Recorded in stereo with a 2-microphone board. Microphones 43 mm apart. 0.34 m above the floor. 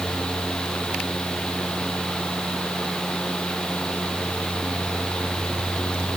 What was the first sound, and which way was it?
Only background noise.